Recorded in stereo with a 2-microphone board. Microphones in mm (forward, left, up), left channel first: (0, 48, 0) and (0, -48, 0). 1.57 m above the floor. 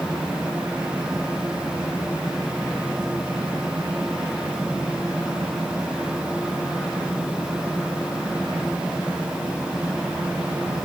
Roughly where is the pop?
No pop in this recording.